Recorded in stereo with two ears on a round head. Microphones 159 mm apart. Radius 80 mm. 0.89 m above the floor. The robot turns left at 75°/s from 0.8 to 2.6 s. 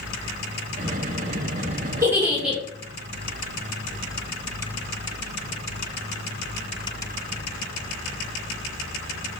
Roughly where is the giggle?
Centre.